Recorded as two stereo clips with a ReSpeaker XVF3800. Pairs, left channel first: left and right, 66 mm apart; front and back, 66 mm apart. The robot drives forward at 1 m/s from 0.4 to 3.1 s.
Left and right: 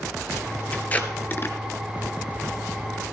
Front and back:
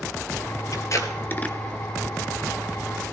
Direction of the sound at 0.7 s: 20° left.